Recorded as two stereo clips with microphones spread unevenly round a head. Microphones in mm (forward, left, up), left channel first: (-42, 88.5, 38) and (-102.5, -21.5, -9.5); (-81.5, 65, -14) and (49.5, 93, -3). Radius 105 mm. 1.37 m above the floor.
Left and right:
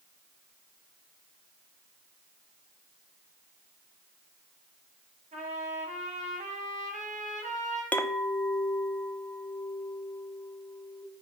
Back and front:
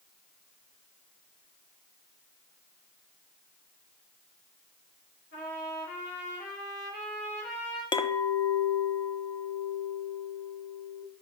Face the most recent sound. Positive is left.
turn(degrees=130)